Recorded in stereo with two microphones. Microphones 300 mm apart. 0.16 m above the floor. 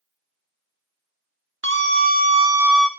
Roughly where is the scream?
Right.